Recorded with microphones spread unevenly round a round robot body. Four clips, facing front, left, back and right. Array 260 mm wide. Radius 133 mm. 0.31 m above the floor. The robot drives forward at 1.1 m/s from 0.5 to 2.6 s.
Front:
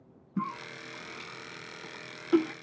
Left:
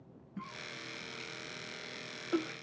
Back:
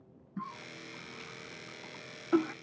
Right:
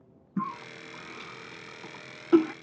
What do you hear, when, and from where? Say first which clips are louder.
0.4 s a cough: right 12 dB, front 7 dB; 55° right; by 2.5 s 100° right